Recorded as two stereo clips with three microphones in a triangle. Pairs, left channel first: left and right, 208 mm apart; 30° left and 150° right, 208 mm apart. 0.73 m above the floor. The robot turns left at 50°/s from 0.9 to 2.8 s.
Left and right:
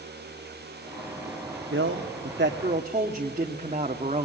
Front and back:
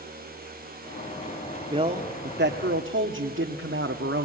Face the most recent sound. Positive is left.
turn(degrees=-145)